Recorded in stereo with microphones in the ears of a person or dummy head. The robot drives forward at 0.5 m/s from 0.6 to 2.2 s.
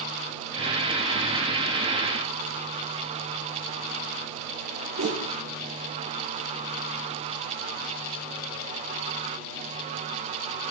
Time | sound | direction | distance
5.0 | a whoosh | 80° right | 6.5 m